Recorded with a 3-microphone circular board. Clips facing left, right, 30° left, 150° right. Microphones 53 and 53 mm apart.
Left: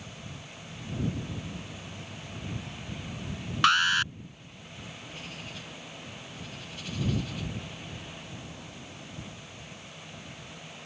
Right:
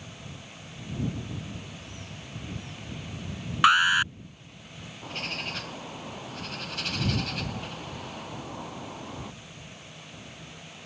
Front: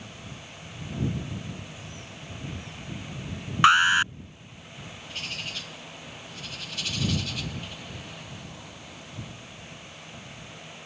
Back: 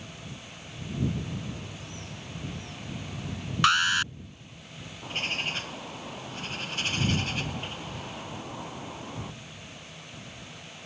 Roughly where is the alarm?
Ahead right.